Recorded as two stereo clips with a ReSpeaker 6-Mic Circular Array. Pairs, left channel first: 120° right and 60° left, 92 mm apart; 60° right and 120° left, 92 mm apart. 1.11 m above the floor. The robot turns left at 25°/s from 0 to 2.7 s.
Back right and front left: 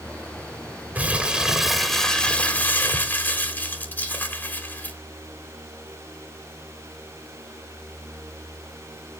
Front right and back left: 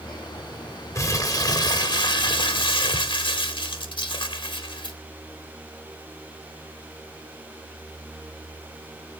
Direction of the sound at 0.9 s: 10° right.